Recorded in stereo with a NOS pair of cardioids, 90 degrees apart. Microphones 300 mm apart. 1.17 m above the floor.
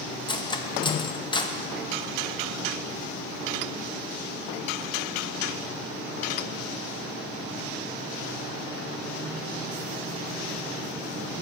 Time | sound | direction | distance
0.3 | cutlery clinking | 15° left | 0.7 m